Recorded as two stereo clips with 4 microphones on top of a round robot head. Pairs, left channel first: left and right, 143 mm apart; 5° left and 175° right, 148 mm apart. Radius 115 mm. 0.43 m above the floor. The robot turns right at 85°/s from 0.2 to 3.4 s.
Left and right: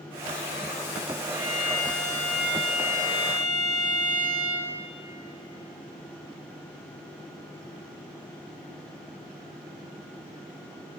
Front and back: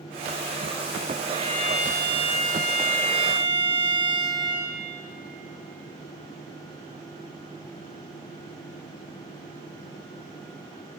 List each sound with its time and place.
1.3 s a violin: 65° left, 1.4 m; by 4.7 s 120° right, 1.4 m